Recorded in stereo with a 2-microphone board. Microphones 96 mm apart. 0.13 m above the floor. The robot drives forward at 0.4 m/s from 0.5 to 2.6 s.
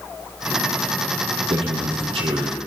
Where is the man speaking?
75° right (ahead or behind), 3.5 m; by 2.6 s 70° right (ahead or behind), 3.5 m.